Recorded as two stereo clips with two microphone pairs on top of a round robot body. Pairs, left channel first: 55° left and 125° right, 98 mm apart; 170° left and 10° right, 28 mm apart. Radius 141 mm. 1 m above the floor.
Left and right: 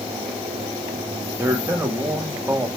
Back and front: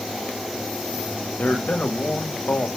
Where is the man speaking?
170° left, 2.5 m.